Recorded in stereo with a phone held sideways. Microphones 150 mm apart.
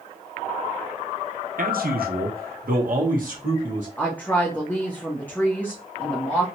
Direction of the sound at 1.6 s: 65° right (ahead or behind).